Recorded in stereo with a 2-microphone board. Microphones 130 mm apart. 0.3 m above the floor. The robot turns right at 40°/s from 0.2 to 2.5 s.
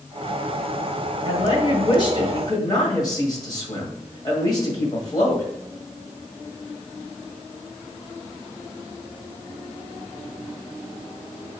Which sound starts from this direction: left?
A woman speaking, at 1.2 s.